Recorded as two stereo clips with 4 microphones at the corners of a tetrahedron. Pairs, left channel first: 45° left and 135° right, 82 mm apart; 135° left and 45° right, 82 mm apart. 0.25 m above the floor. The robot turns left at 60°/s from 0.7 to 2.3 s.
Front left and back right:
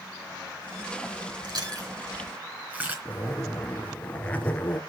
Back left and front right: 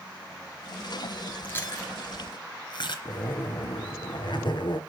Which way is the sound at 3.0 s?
115° left.